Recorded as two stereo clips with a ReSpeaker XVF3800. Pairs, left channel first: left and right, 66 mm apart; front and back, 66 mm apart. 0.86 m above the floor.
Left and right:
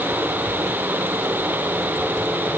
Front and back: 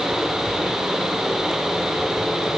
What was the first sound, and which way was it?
Only background noise.